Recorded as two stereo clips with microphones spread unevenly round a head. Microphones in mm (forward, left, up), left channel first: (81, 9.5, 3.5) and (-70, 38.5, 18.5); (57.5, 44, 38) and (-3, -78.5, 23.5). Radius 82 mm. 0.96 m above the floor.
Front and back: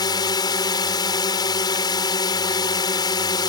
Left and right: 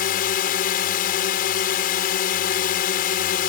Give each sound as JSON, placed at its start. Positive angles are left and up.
{"t": 0.0, "sound": "a drone", "azimuth_deg": 50}